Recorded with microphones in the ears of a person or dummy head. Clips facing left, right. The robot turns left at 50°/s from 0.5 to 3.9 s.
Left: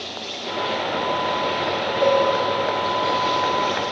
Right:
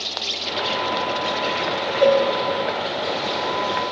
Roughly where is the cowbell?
Right.